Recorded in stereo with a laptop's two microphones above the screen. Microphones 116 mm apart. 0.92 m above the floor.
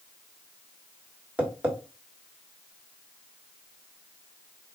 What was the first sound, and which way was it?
Tapping, 15° right (ahead or behind).